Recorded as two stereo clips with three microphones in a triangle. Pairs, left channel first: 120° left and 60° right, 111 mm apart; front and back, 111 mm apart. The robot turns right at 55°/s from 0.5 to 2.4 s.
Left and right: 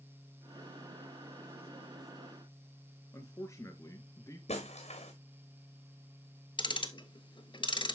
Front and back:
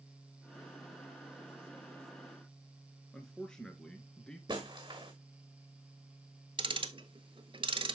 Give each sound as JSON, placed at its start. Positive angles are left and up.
{"t": 3.1, "sound": "a man speaking", "azimuth_deg": 80, "distance_m": 1.7}
{"t": 4.5, "sound": "breaking glass", "azimuth_deg": 130, "distance_m": 1.7}
{"t": 6.6, "sound": "ticking", "azimuth_deg": 155, "distance_m": 0.7}